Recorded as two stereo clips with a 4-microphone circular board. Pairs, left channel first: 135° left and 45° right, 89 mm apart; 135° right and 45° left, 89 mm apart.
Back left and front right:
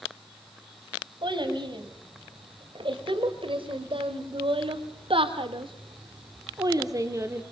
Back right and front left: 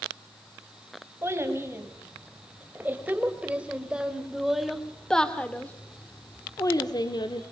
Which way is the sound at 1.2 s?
15° right.